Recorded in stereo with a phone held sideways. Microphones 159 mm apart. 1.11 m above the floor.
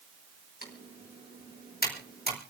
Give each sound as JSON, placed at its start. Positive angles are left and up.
{"t": 0.6, "sound": "typing on a keyboard", "side_deg": 65, "distance_m": 4.5}